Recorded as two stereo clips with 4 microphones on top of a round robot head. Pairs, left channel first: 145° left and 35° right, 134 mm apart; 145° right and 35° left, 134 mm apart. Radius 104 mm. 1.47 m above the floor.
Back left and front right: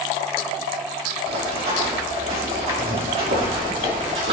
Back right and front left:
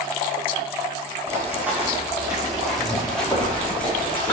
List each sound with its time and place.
1.3 s running footsteps: 35° right, 4 m; by 4.3 s 70° right, 5.5 m